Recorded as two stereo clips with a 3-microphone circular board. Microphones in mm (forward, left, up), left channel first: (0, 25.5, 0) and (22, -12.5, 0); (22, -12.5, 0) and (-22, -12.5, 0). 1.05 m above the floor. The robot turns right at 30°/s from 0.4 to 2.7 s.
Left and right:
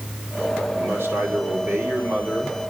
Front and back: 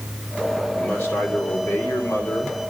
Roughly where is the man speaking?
Ahead right.